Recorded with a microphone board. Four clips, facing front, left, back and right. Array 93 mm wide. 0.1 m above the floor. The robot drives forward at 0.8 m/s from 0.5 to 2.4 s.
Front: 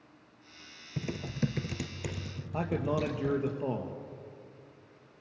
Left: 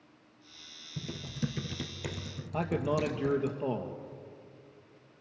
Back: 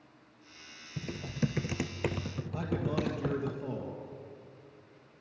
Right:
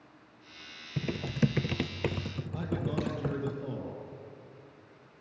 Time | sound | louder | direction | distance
1.0 | typing on a keyboard | right 7 dB, front 1 dB | 60° right | 0.8 m
2.5 | a man speaking | left 4 dB, front 3 dB | 55° left | 2.5 m